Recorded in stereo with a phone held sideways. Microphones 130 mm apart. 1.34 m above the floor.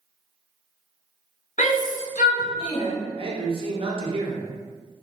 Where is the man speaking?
45° right (ahead or behind), 0.6 m.